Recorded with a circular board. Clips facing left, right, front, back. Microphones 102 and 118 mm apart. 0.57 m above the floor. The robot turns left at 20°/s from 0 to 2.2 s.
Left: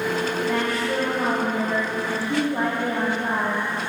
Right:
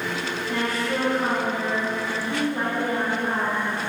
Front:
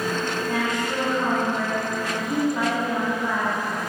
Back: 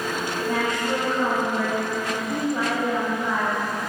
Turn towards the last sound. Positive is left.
turn(degrees=105)